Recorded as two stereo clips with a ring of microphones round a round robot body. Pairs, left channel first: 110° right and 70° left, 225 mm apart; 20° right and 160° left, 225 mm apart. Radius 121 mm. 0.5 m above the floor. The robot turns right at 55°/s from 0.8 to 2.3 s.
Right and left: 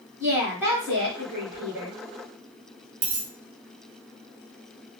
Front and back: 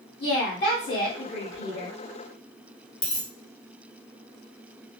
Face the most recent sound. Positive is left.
turn(degrees=50)